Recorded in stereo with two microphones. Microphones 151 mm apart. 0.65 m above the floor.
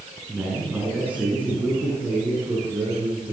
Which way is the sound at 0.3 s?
10° right (ahead or behind).